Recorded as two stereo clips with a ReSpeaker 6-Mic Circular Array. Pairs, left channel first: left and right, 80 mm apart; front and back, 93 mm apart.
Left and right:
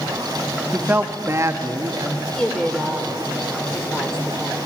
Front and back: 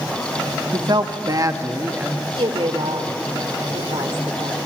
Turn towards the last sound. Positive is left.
turn(degrees=170)